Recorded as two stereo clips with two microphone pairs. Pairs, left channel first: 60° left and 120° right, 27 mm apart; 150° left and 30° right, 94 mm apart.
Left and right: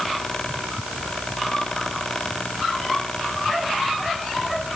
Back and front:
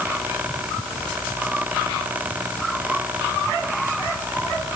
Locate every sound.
Only background noise.